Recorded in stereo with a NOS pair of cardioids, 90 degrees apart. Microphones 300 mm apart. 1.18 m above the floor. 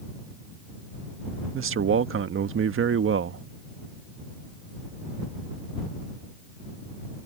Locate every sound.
1.5 s a man speaking: 45° right